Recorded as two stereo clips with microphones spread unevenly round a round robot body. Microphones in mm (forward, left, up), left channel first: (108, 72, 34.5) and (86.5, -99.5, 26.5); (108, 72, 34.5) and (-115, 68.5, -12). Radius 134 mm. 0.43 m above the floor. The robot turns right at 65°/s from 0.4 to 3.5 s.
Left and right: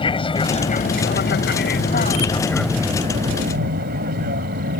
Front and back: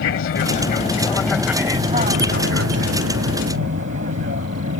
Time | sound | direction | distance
0.0 | an aircraft | 25° left | ?